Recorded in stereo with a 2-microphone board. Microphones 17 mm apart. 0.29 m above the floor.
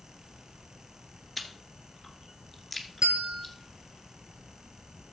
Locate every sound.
1.4 s chewing: 5° right (ahead or behind), 2 m
3.0 s a bell: 60° right (ahead or behind), 1.6 m